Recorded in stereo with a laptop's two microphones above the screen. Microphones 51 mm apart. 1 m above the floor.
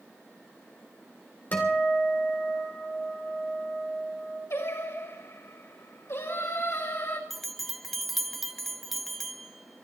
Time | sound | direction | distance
1.5 | a guitar | 35° left (ahead or behind) | 3.5 m
4.5 | singing | 65° left (ahead or behind) | 4 m
7.3 | a bell | 5° left (ahead or behind) | 0.7 m